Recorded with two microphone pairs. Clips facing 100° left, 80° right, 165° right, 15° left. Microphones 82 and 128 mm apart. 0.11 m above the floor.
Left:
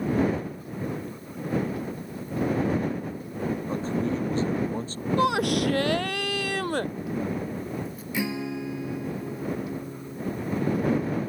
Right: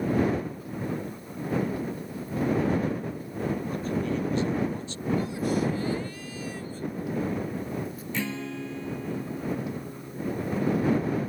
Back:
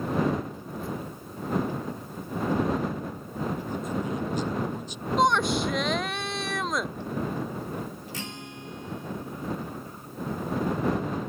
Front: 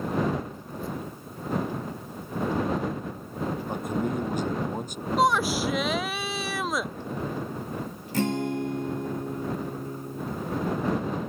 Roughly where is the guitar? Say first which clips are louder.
Left 4 dB, front 13 dB; ahead left.